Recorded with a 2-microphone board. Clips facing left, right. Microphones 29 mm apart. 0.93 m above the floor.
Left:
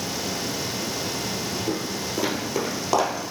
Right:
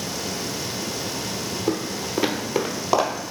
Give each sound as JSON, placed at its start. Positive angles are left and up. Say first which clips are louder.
{"t": 1.7, "sound": "footsteps", "louder": "right 2 dB", "side_deg": -45, "distance_m": 1.3}